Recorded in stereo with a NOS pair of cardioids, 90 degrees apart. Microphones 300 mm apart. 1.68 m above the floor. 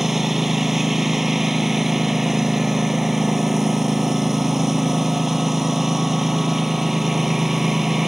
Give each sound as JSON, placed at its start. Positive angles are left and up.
{"t": 0.0, "sound": "a lawn mower", "azimuth_deg": 0}